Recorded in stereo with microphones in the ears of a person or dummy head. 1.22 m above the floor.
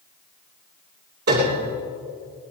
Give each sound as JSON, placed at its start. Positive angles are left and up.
{"t": 1.3, "sound": "a piano", "side_deg": -55, "distance_m": 3.0}